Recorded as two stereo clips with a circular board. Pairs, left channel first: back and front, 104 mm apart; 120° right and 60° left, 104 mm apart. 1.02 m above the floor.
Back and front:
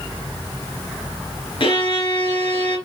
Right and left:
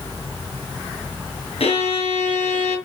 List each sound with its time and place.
1.6 s a violin: 145° right, 5 m